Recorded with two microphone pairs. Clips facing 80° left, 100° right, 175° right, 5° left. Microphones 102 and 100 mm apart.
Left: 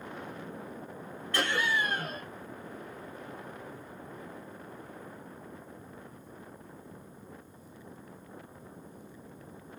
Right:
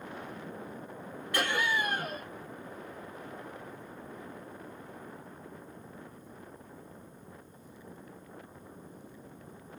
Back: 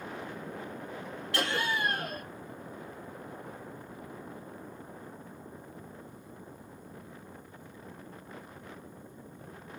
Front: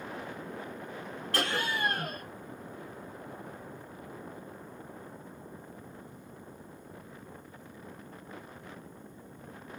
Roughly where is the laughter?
Ahead right.